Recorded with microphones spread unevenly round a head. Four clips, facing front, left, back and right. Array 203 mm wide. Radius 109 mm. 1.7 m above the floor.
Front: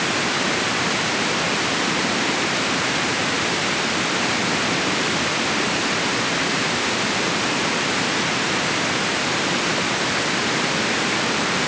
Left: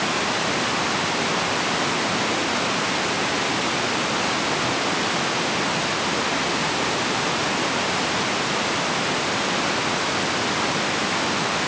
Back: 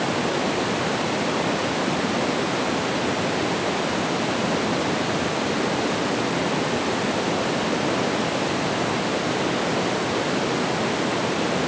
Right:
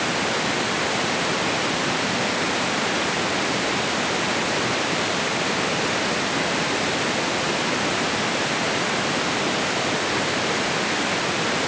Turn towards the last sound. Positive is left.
No sound to turn to.